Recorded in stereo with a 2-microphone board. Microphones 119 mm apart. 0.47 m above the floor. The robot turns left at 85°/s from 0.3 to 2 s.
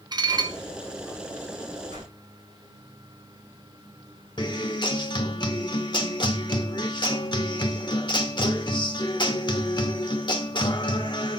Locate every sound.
0.1 s dishes clattering: 40° right (ahead or behind), 0.6 m; by 0.6 s 35° right (ahead or behind), 0.6 m
1.9 s a whoosh: 80° right, 6.5 m; by 2.1 s 90° right, 6.5 m
4.4 s a guitar: 40° left (ahead or behind), 0.9 m